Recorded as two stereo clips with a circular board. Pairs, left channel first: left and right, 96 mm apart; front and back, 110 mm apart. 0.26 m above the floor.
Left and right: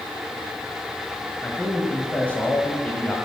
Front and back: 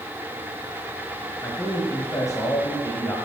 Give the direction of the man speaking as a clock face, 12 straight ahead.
11 o'clock.